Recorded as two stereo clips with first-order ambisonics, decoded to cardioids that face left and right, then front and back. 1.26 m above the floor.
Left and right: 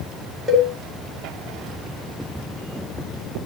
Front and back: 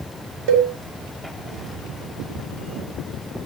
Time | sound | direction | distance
0.5 | a cowbell | 170° right | 2.5 m